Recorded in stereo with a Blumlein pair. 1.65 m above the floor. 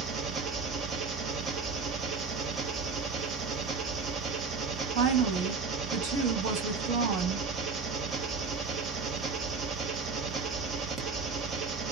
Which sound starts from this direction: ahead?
An engine running, at 0.0 s.